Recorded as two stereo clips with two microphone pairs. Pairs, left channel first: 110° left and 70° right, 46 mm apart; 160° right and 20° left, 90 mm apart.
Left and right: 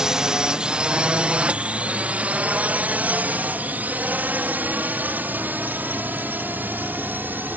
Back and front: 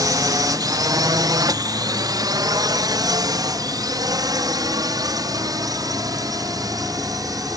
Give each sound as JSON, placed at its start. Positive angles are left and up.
{"t": 0.0, "sound": "a drone", "azimuth_deg": 0}